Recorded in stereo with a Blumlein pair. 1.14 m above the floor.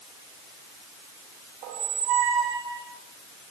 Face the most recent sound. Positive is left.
turn(degrees=-45)